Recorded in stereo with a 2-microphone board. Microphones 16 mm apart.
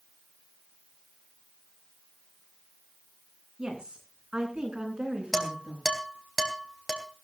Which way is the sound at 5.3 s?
5° left (ahead or behind).